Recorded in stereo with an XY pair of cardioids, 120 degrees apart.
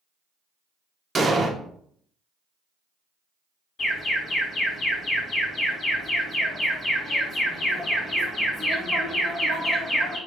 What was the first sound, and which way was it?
An explosion, 25° right.